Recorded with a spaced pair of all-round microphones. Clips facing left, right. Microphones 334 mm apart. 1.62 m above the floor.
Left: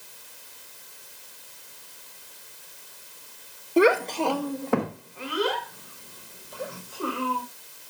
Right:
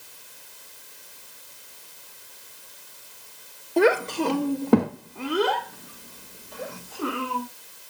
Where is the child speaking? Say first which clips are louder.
Even; 10° left (ahead or behind), 0.5 m; by 7.4 s 75° right (ahead or behind), 2.5 m.